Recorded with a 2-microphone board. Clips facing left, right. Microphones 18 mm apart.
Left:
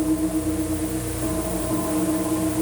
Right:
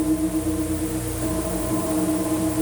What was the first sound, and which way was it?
Only background noise.